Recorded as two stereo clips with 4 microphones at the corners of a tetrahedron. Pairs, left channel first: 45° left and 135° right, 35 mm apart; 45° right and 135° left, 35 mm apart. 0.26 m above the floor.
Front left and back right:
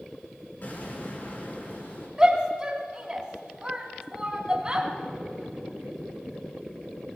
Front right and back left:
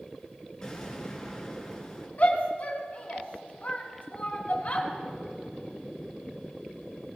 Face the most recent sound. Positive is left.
turn(degrees=-70)